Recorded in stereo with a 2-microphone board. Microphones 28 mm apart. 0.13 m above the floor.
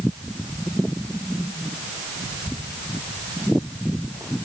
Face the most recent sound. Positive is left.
No sound to turn to.